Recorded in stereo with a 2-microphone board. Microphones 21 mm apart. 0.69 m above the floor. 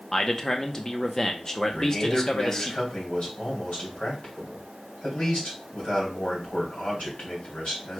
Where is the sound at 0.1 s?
25° left (ahead or behind), 0.7 m.